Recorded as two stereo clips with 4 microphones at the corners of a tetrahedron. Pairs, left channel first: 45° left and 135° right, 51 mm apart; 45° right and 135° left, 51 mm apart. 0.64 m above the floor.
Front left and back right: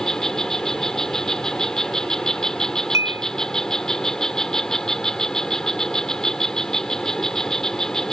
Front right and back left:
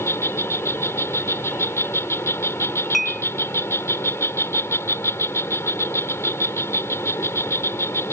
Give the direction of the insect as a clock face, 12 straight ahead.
1 o'clock.